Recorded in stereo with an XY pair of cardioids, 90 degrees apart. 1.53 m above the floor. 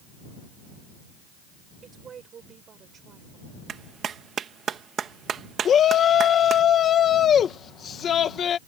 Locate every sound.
1.8 s a woman speaking: 55° right; by 3.5 s 65° right
3.7 s a clap: 65° right
5.7 s a shout: 65° left